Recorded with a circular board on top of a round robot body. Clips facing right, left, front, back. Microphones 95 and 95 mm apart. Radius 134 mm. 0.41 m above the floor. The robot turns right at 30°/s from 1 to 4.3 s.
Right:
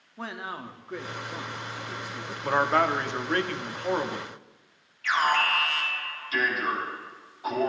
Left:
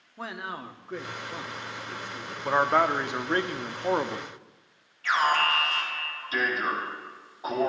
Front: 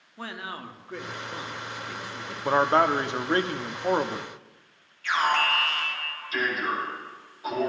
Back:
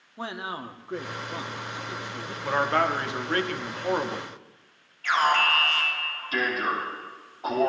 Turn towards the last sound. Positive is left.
turn(degrees=140)